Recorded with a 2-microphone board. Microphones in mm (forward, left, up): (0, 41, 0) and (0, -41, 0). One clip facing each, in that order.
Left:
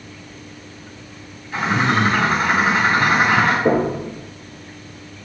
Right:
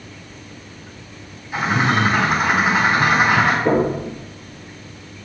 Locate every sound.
1.5 s a bird: 10° right (ahead or behind), 1.9 m
3.6 s knocking: 30° left (ahead or behind), 3 m